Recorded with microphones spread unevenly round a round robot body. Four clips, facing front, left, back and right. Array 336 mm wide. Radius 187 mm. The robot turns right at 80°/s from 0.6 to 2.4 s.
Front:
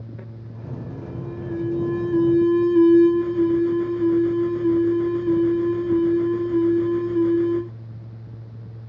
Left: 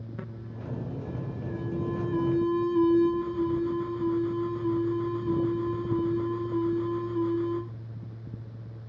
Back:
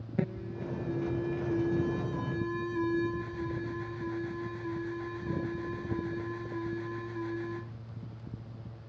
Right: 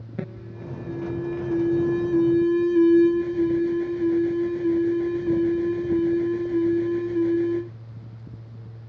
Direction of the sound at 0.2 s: 155° right.